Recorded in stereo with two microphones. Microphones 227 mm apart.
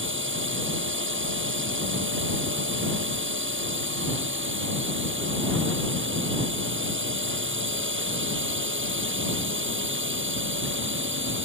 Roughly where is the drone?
Right.